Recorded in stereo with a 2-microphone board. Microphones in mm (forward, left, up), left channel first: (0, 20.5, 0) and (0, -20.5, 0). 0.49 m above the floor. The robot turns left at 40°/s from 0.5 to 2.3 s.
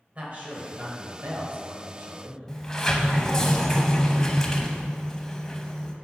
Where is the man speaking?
40° right, 1.8 m; by 2.4 s 110° right, 1.8 m.